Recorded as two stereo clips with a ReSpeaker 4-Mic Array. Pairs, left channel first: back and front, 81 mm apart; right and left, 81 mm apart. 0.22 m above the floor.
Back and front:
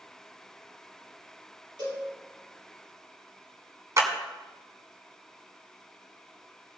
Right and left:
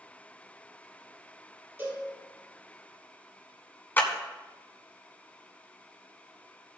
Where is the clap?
35° right, 1.8 m.